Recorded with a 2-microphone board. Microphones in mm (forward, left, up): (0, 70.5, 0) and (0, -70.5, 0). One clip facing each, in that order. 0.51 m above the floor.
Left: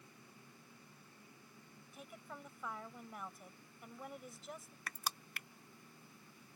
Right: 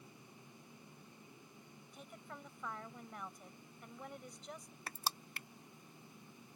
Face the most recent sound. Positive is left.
turn(degrees=-30)  # may be behind; listen again after turning